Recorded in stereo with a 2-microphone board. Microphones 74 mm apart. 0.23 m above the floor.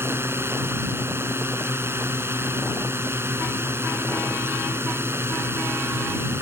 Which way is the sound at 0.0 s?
35° right (ahead or behind).